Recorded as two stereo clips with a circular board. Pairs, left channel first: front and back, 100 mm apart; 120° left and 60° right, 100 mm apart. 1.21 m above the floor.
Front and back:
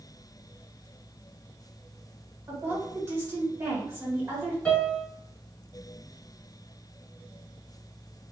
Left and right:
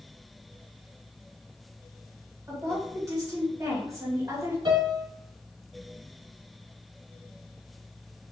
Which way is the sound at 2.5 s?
115° right.